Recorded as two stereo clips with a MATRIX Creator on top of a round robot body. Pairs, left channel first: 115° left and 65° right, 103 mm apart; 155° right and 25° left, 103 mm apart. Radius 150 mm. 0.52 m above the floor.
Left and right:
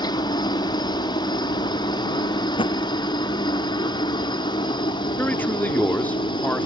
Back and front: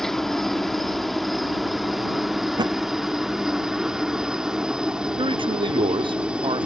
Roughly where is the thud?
Left.